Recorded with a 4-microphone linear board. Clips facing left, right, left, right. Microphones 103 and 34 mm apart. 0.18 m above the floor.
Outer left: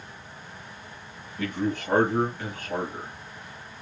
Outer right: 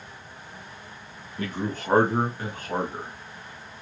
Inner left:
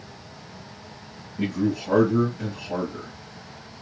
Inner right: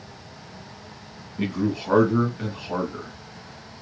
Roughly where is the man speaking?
Right.